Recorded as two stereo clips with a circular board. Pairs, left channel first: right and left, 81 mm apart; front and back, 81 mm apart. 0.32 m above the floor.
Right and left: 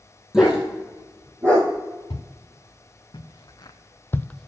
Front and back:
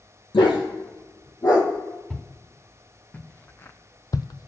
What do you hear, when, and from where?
0.3 s a dog barking: 10° left, 2 m; by 1.7 s 45° left, 2.5 m
2.1 s footsteps: 85° right, 1.8 m; by 4.5 s straight ahead, 0.5 m